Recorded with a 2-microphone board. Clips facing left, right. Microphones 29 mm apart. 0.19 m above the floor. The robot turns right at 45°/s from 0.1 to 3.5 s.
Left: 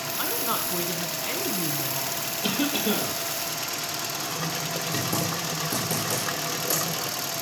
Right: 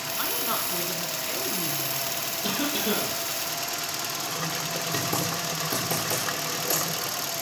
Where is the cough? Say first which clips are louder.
Left 2 dB; 120° left, 6.5 m; by 3.1 s 155° left, 6.5 m.